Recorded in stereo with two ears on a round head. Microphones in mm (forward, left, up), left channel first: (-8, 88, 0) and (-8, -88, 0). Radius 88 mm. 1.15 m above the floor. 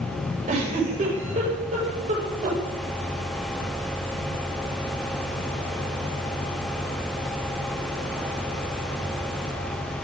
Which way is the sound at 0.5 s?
40° right (ahead or behind).